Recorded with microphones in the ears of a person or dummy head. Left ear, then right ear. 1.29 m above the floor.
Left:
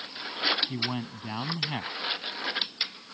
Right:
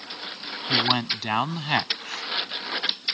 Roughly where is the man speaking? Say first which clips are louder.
Right 11 dB; right.